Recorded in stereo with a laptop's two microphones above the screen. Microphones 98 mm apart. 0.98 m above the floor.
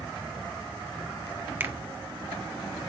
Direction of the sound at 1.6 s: 20° right (ahead or behind).